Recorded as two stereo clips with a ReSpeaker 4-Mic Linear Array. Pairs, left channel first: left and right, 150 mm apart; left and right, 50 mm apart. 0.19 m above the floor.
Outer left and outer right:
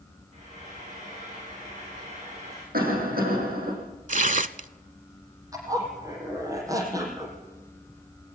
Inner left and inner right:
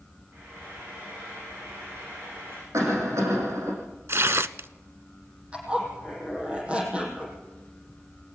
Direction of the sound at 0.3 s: 50° right (ahead or behind).